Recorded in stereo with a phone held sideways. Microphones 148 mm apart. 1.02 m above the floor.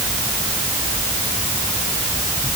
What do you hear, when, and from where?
Only background noise.